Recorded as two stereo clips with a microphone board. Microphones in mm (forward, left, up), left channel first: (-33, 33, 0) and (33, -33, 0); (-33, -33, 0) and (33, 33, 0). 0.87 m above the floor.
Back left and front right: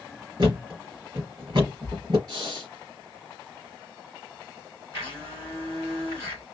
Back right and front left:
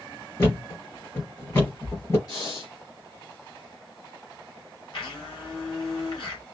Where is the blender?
105° right, 3.5 m.